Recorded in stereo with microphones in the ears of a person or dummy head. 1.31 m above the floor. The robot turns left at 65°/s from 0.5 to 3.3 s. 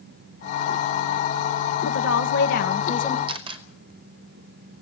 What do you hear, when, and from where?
1.9 s a woman speaking: 105° left, 1.6 m; by 3.2 s 20° left, 1.6 m
3.3 s a camera shutter: 30° right (ahead or behind), 2 m